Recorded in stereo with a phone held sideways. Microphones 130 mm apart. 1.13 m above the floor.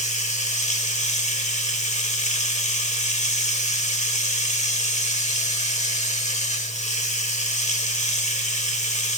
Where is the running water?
65° left (ahead or behind), 1.6 m.